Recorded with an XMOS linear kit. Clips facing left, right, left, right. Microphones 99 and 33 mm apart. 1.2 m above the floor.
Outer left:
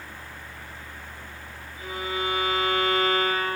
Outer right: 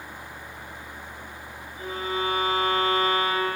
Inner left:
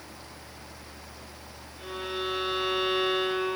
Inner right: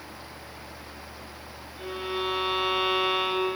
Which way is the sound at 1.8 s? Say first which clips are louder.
Outer right 2 dB, inner right 2 dB; 35° right (ahead or behind).